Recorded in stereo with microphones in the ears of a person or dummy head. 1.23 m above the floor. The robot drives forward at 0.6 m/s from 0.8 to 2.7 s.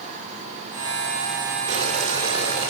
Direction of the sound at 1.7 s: 35° right (ahead or behind).